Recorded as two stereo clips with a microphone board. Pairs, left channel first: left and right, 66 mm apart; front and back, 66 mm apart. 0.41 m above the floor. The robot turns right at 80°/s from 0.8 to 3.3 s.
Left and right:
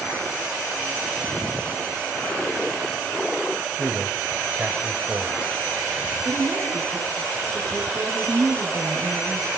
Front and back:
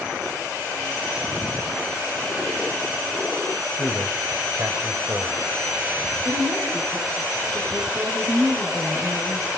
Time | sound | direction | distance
3.7 | a man speaking | 150° right | 1.4 m
6.2 | a woman speaking | 165° right | 5.5 m